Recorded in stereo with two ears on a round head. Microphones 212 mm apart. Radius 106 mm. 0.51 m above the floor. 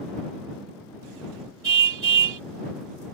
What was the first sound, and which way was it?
A car horn, 55° right (ahead or behind).